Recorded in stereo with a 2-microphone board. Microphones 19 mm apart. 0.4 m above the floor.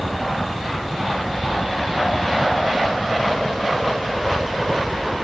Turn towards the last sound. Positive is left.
turn(degrees=-5)  # may be behind; listen again after turning